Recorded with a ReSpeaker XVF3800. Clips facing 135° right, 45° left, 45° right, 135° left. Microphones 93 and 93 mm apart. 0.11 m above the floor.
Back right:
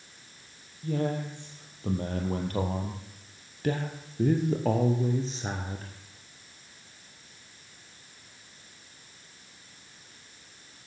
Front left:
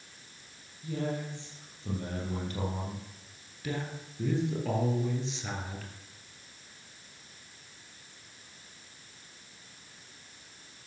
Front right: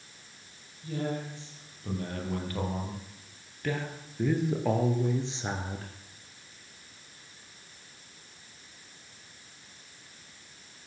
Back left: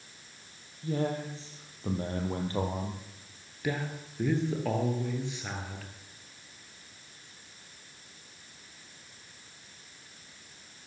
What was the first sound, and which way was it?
A man speaking, 175° right.